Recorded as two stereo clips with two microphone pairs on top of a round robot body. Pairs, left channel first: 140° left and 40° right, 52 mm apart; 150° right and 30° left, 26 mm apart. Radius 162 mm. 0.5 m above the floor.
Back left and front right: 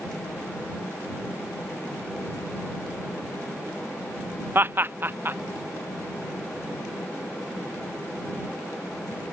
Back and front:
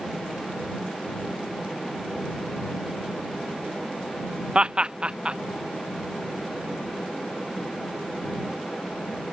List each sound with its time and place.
4.5 s laughter: 10° left